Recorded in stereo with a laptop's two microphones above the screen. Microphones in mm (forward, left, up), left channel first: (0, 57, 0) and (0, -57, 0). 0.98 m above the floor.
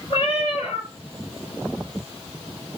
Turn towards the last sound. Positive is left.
turn(degrees=45)  # may be behind; listen again after turning